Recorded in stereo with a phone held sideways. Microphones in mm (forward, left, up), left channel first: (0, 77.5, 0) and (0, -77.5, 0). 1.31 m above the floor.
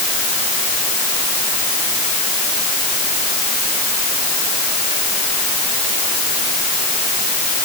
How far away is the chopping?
No chopping in this recording.